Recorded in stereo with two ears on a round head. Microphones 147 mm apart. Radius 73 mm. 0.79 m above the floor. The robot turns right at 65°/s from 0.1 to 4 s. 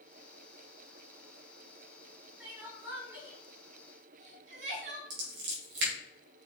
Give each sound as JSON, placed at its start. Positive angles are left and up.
{"t": 2.4, "sound": "crying", "side_deg": -5, "distance_m": 1.7}
{"t": 5.1, "sound": "scissors", "side_deg": -80, "distance_m": 2.5}